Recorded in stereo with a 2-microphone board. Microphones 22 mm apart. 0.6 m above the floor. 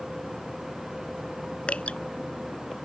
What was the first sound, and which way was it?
Dripping, 60° left (ahead or behind).